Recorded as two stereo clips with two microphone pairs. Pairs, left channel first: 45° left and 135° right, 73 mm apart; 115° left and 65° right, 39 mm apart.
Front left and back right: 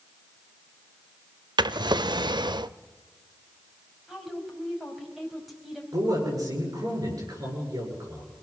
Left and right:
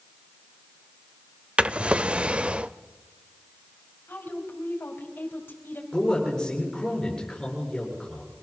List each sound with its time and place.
1.6 s a drawer: 125° right, 0.6 m
4.1 s a woman speaking: 135° left, 4 m
5.9 s a man speaking: 170° right, 8.5 m